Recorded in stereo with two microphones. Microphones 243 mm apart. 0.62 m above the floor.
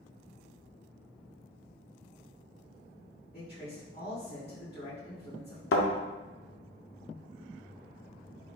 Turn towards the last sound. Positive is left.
turn(degrees=65)  # may be behind; listen again after turning